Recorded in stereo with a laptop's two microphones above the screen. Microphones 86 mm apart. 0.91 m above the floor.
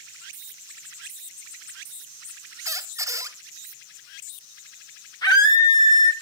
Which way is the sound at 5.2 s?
50° left (ahead or behind).